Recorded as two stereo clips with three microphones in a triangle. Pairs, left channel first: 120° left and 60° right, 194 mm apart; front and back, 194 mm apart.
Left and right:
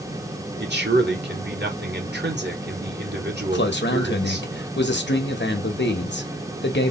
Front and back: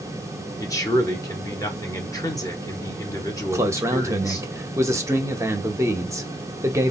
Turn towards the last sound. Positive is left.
turn(degrees=105)